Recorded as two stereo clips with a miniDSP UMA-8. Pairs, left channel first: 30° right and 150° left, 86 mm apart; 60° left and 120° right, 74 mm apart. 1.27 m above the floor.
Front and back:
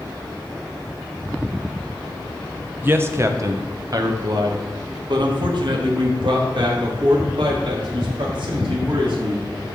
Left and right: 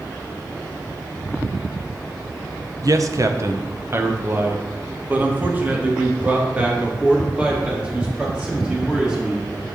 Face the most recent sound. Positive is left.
turn(degrees=165)